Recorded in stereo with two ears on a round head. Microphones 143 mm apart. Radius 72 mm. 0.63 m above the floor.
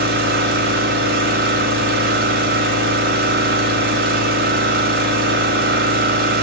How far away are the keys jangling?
I don't hear keys jangling.